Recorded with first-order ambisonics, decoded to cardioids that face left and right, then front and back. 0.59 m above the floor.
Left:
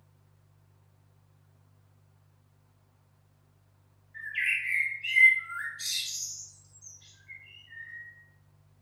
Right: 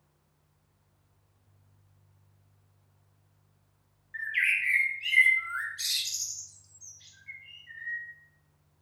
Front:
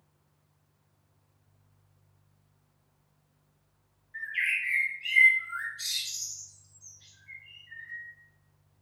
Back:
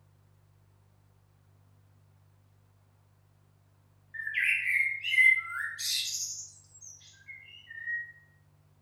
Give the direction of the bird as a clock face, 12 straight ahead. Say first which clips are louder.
Right 3 dB, back 1 dB; 4 o'clock.